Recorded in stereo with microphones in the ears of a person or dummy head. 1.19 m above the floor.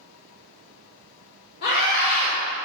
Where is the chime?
No chime in this recording.